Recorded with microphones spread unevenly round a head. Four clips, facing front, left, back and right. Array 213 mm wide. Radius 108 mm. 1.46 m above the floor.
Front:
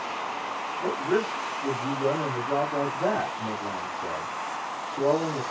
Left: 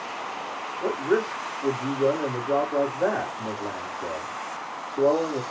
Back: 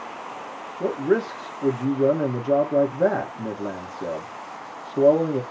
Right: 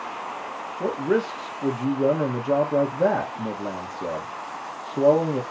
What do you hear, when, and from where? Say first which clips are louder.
0.8 s a man speaking: right 1 dB, back 5 dB; 140° right, 1.4 m